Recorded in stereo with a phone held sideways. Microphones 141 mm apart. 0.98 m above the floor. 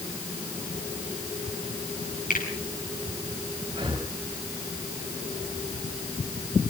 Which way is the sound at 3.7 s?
35° right (ahead or behind).